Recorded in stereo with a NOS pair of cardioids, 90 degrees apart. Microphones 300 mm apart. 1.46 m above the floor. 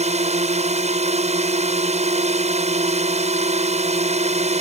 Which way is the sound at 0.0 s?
20° right.